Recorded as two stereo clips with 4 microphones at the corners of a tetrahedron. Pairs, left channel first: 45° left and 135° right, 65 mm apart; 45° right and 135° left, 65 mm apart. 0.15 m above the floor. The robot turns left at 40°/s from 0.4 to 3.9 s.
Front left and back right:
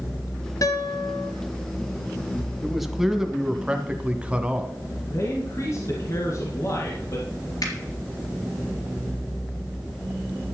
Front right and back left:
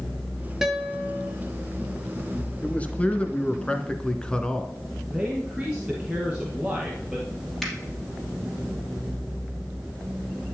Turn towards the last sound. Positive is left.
turn(degrees=40)